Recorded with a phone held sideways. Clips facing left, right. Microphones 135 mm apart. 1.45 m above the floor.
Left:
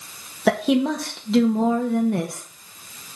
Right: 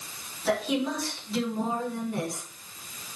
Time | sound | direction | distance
0.5 | a woman speaking | 65° left (ahead or behind) | 1.8 m